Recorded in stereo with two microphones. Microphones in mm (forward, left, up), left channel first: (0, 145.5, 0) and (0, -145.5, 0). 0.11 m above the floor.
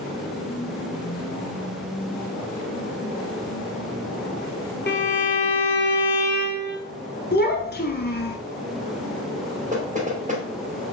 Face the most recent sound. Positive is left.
turn(degrees=-25)  # may be behind; listen again after turning